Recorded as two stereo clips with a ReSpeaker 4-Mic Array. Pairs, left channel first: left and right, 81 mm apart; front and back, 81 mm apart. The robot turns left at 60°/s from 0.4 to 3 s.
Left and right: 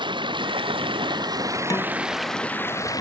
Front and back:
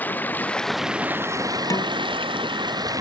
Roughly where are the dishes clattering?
Ahead left.